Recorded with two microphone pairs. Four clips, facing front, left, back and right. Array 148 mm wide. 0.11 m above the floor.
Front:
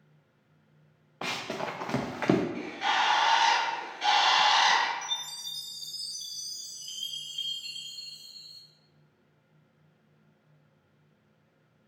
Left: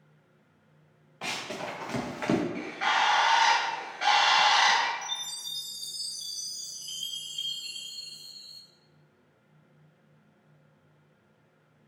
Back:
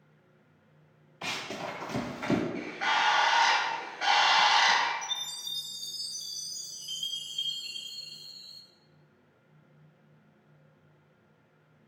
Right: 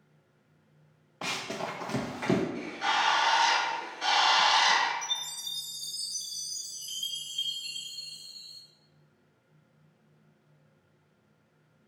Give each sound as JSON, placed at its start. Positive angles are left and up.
{"t": 1.2, "sound": "running footsteps", "azimuth_deg": -20, "distance_m": 1.3}
{"t": 2.5, "sound": "a bird", "azimuth_deg": 105, "distance_m": 1.3}
{"t": 5.0, "sound": "a chime", "azimuth_deg": -10, "distance_m": 1.9}